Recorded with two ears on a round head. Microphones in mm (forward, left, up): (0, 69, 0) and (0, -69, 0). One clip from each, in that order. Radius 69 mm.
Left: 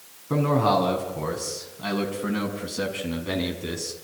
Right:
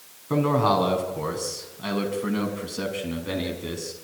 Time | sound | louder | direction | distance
0.3 | a man speaking | even | 20° right (ahead or behind) | 5.5 m